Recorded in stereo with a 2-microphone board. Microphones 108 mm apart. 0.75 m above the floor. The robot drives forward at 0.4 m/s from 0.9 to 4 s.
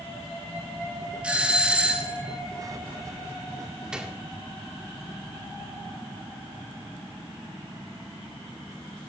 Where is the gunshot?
5° right (ahead or behind), 1.7 m.